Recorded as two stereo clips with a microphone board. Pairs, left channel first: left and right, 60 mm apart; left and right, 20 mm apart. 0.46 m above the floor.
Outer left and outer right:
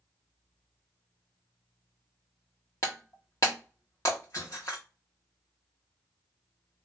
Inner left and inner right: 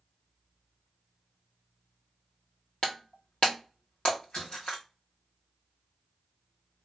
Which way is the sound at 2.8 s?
60° left (ahead or behind).